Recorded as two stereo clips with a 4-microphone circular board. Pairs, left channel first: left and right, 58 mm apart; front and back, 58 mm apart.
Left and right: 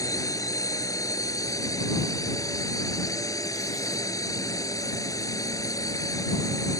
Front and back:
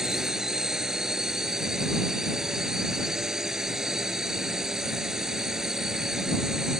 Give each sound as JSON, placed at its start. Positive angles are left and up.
{"t": 0.0, "sound": "a drone", "azimuth_deg": 100}